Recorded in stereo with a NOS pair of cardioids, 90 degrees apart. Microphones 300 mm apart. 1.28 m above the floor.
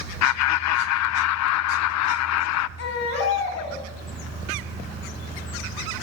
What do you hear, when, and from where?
0.2 s laughter: 70° left, 0.6 m
2.8 s a baby crying: 70° left, 5.5 m